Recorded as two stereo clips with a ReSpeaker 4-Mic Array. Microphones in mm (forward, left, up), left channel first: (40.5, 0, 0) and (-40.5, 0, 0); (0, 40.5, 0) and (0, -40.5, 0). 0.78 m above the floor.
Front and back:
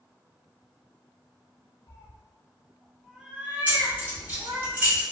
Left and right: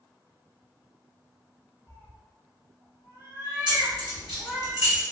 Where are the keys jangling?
110° right, 1.6 m.